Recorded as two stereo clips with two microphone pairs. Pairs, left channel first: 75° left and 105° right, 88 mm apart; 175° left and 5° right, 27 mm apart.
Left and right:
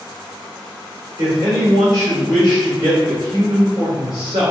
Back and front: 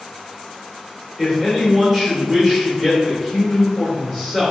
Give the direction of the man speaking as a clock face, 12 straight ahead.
3 o'clock.